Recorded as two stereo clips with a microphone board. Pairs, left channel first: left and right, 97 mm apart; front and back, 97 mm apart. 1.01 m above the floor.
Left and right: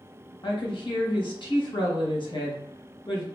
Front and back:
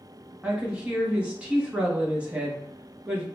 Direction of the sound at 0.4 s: 105° left.